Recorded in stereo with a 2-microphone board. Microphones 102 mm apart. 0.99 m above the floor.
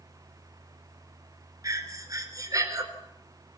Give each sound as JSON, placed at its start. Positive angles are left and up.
{"t": 1.6, "sound": "breathing", "side_deg": -35, "distance_m": 4.0}